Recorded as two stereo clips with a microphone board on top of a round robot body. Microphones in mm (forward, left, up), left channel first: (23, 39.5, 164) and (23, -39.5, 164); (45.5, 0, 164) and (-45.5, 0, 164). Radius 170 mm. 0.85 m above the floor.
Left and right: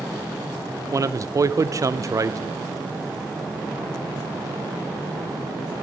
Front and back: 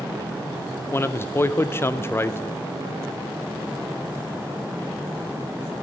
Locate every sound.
0.9 s a man speaking: 55° right, 0.5 m